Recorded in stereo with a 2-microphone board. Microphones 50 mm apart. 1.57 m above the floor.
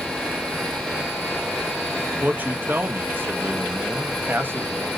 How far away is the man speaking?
About 0.8 m.